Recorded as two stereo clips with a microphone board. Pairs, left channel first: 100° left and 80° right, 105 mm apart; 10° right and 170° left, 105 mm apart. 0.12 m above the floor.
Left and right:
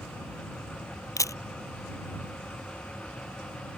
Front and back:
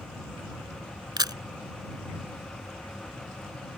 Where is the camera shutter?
140° left.